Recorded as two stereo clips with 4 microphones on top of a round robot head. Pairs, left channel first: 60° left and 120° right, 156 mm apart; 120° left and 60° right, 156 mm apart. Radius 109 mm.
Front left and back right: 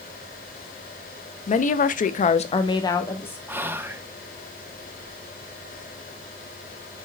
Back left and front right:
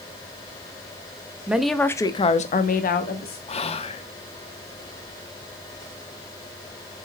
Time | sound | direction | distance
1.5 | a woman speaking | 25° left | 0.8 m
3.5 | whispering | 165° left | 0.7 m